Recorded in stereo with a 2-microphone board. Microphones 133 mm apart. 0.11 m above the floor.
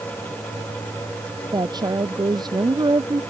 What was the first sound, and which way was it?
A woman speaking, 30° right (ahead or behind).